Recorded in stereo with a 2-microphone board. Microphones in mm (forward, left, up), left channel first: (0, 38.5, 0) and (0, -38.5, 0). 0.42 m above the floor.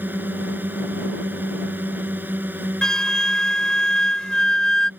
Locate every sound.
0.0 s a drone: 25° right (ahead or behind)
2.8 s a flute: 10° left (ahead or behind)